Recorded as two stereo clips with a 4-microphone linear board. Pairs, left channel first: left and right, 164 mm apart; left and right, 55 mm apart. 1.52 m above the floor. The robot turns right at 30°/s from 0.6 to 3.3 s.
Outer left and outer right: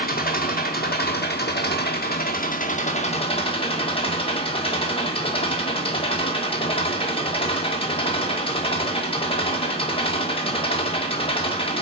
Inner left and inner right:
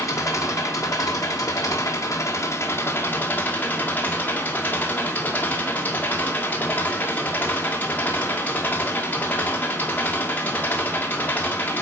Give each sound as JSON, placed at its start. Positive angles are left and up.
{"t": 0.0, "sound": "an engine running", "azimuth_deg": 65, "distance_m": 1.8}